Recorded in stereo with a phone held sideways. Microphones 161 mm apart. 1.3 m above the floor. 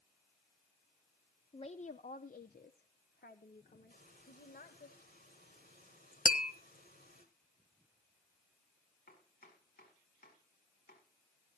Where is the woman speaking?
35° left (ahead or behind), 0.6 m; by 4.9 s 75° left (ahead or behind), 1.9 m.